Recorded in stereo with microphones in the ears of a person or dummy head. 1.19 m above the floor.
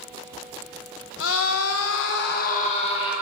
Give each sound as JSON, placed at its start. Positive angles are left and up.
{"t": 1.2, "sound": "a scream", "side_deg": 60, "distance_m": 1.2}